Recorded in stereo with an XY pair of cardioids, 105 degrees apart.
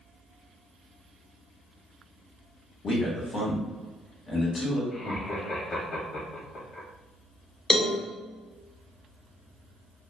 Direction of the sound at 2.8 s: 45° left.